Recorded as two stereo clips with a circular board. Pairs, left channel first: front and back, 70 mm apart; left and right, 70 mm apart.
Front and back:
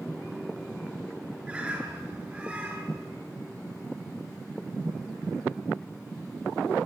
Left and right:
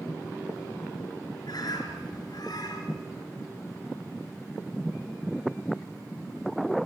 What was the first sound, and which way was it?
A bird, 105° left.